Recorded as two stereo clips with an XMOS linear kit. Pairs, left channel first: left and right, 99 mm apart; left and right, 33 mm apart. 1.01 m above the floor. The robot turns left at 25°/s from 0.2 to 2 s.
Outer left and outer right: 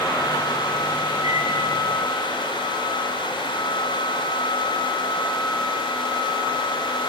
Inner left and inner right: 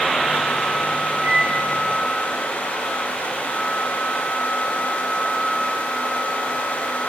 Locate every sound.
1.2 s a microwave: 35° right (ahead or behind), 9.5 m; by 1.6 s 45° right (ahead or behind), 9.5 m